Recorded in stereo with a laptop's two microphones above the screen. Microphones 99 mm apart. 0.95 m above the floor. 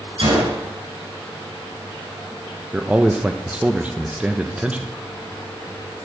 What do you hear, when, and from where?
0.2 s a gunshot: 65° right (ahead or behind), 6 m
2.7 s a man speaking: 15° right (ahead or behind), 0.5 m